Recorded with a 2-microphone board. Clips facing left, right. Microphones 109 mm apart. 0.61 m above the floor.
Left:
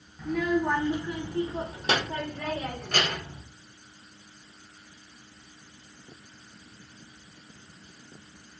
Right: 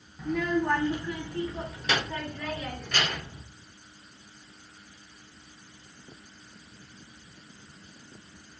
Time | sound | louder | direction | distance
0.2 | a child speaking | left 1 dB | 5° right (ahead or behind) | 0.9 m